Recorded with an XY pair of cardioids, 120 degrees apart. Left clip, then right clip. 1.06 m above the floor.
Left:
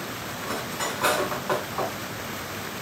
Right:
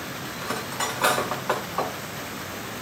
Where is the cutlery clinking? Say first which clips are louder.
Right 1 dB; 25° right, 7 m.